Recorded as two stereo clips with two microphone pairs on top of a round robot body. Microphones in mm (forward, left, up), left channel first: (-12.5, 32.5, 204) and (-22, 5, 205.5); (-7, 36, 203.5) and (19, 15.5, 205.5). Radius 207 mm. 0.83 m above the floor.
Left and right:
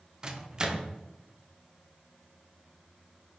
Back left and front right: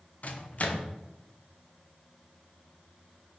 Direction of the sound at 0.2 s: 175° right.